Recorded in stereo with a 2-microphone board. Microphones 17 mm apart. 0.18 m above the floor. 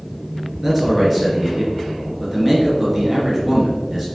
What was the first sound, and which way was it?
A man speaking, 10° right (ahead or behind).